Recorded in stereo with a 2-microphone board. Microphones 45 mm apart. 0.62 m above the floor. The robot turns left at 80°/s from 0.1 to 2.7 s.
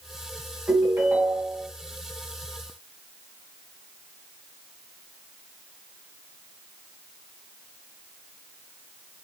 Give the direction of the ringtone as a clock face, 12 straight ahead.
2 o'clock.